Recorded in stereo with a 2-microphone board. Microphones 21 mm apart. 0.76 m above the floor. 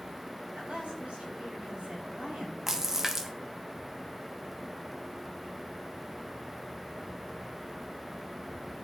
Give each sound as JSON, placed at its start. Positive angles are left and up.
{"t": 0.5, "sound": "a woman speaking", "side_deg": -85, "distance_m": 4.5}
{"t": 2.7, "sound": "a splash", "side_deg": -20, "distance_m": 0.7}